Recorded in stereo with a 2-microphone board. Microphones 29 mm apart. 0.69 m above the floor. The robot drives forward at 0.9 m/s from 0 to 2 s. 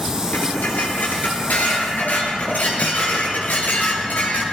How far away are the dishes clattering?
About 8.5 m.